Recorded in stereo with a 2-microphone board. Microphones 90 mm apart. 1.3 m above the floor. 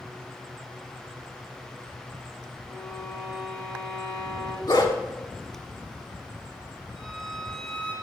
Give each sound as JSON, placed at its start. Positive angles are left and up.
{"t": 2.7, "sound": "a violin", "side_deg": -30, "distance_m": 1.4}
{"t": 4.7, "sound": "a dog barking", "side_deg": 50, "distance_m": 1.4}
{"t": 7.0, "sound": "a violin", "side_deg": 5, "distance_m": 2.0}